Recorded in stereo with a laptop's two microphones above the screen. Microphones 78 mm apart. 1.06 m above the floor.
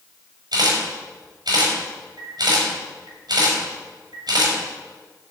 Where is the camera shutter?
70° right (ahead or behind), 5.5 m.